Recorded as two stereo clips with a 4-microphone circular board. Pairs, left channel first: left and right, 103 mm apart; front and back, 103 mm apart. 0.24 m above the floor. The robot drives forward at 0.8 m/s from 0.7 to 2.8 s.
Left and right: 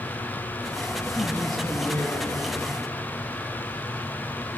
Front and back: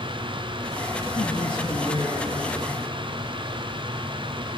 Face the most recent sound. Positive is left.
turn(degrees=50)